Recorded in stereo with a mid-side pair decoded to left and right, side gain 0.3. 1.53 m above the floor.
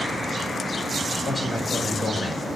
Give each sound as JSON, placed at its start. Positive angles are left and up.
{"t": 1.2, "sound": "a man speaking", "azimuth_deg": 30, "distance_m": 5.5}